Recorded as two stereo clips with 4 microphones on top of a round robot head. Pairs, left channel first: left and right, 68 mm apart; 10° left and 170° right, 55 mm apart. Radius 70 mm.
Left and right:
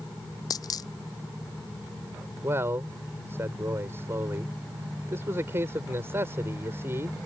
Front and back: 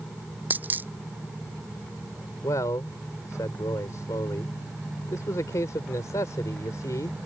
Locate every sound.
0.5 s a dropped coin: 135° left
2.4 s a man speaking: 35° right